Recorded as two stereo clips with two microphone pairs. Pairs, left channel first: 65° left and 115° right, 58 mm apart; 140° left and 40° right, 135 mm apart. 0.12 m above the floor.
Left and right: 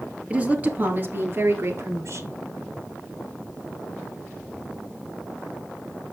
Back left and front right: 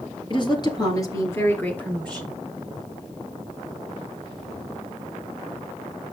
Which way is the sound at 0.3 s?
Straight behind.